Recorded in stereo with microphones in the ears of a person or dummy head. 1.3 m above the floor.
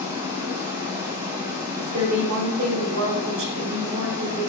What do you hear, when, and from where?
0.0 s running water: 20° right (ahead or behind), 0.7 m
1.8 s a woman speaking: 70° right (ahead or behind), 0.8 m